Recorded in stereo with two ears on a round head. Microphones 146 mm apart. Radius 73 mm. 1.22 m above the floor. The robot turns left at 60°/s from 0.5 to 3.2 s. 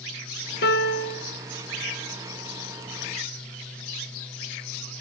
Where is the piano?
90° left, 1.3 m; by 1.2 s 55° left, 1.3 m.